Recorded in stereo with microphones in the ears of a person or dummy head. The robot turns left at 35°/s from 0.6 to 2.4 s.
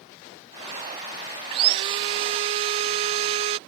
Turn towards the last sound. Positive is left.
turn(degrees=-30)  # may be behind; listen again after turning